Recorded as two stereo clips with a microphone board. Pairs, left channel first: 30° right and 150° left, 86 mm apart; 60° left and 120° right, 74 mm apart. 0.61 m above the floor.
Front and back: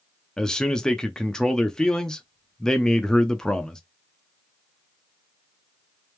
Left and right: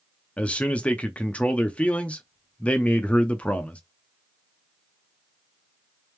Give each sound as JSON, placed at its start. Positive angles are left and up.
{"t": 0.4, "sound": "a man speaking", "azimuth_deg": 35, "distance_m": 0.5}